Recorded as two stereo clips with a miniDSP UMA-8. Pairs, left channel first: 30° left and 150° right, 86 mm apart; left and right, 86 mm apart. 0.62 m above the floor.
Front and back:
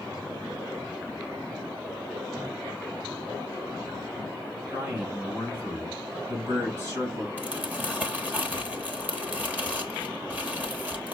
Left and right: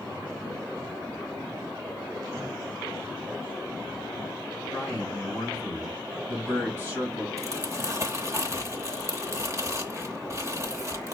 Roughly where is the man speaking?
Behind left.